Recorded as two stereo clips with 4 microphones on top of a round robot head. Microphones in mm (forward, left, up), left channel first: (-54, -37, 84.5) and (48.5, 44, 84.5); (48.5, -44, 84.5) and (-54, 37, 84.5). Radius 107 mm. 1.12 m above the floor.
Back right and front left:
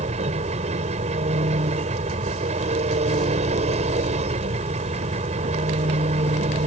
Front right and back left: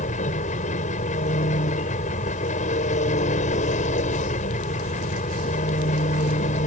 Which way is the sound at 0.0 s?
5° right.